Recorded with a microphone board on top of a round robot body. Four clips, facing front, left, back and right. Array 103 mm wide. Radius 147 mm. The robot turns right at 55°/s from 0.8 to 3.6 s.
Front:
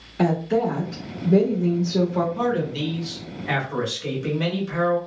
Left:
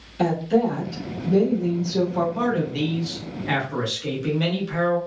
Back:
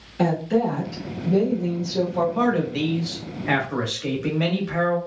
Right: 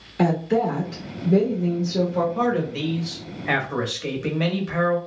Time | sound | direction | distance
0.2 | a woman speaking | 75° right | 1.2 m
2.4 | a man speaking | 175° left | 1.4 m